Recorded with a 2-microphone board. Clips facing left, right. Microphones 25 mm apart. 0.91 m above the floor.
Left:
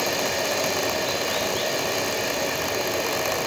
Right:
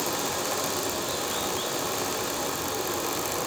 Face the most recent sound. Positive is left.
turn(degrees=45)  # may be behind; listen again after turning